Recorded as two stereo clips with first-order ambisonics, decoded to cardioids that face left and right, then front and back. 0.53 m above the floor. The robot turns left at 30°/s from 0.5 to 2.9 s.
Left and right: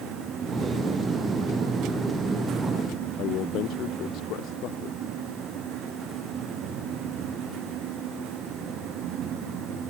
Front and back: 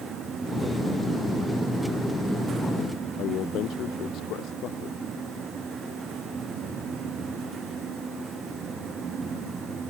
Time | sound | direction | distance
3.2 | a man speaking | 45° left | ?